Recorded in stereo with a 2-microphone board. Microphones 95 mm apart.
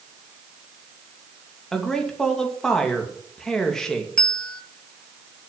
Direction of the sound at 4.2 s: 10° left (ahead or behind).